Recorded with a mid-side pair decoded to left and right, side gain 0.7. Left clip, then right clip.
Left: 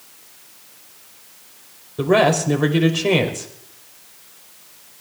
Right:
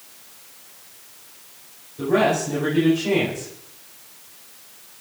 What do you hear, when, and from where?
2.0 s a man speaking: 55° left, 5 m